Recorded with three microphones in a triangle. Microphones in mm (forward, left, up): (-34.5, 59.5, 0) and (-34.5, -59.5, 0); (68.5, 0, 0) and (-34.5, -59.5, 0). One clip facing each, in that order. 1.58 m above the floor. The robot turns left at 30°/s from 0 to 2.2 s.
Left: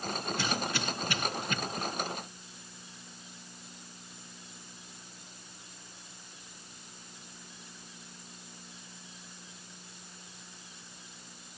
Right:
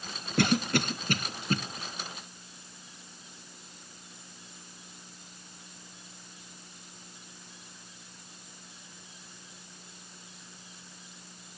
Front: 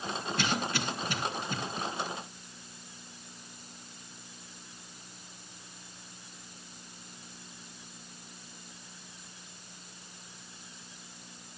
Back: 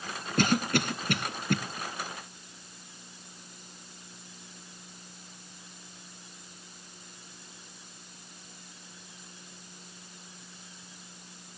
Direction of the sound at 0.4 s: 110° right.